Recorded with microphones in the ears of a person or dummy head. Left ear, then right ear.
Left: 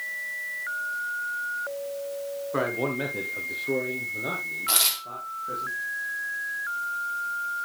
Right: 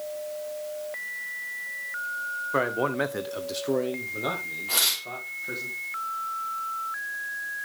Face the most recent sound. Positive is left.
turn(degrees=80)